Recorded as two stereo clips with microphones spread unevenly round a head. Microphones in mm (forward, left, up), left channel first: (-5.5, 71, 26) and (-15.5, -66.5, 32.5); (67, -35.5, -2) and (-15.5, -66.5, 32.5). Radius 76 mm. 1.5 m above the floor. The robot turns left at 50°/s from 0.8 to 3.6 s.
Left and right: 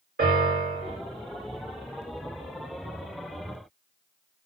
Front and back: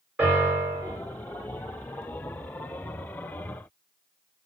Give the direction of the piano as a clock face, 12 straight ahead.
4 o'clock.